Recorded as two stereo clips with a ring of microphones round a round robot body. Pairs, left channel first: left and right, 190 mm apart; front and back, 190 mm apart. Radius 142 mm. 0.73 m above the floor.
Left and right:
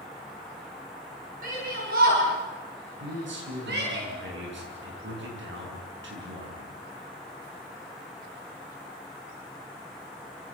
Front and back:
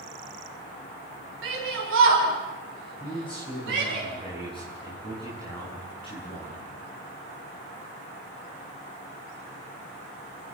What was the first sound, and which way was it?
A shout, 150° right.